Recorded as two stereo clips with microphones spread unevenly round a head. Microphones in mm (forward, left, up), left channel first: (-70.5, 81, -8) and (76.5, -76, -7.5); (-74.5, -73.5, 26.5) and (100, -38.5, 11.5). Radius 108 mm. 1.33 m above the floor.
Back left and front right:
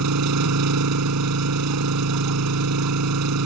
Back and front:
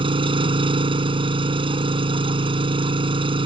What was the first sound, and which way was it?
An engine running, 50° right.